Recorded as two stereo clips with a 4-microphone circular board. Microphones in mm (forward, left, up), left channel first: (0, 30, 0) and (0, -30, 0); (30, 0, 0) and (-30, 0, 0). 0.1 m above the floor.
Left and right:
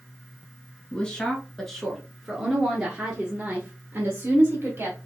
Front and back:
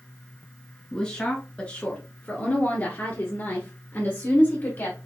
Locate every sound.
0.9 s a woman speaking: 55° left, 1.5 m; by 5.0 s 45° right, 2.5 m